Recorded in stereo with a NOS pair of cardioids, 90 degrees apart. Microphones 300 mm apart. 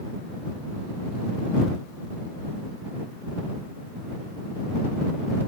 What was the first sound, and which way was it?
Only background noise.